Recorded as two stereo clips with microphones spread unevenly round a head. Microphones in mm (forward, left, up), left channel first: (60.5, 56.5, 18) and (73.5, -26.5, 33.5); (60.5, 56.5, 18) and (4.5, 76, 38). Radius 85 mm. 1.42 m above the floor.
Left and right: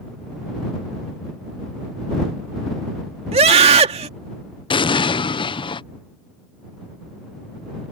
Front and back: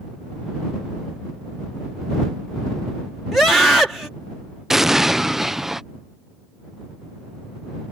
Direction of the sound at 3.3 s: 110° right.